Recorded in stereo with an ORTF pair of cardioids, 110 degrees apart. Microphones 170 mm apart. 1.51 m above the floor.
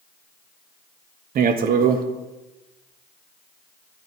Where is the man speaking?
55° right, 0.7 m.